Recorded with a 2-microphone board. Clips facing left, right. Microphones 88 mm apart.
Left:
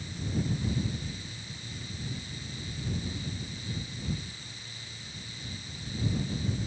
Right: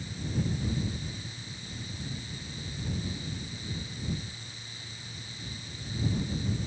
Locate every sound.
Only background noise.